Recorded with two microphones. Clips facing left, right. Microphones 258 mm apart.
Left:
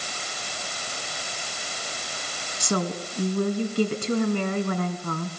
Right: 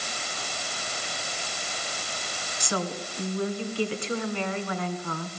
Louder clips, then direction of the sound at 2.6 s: Left 4 dB; 50° left (ahead or behind).